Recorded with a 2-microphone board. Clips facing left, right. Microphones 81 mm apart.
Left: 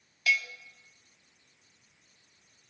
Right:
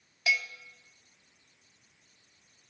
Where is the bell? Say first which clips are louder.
Left 1 dB; 20° right (ahead or behind), 0.5 m.